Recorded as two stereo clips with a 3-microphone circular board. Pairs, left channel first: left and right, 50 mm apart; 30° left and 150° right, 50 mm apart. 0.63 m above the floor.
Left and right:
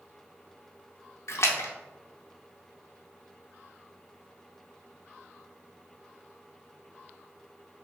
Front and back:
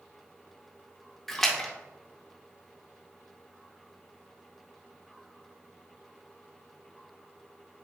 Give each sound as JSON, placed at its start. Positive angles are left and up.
{"t": 1.3, "sound": "a splash", "azimuth_deg": 110, "distance_m": 0.6}